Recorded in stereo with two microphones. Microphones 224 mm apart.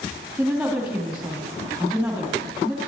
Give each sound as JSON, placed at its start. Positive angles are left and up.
{"t": 0.4, "sound": "a woman speaking", "side_deg": -5, "distance_m": 3.5}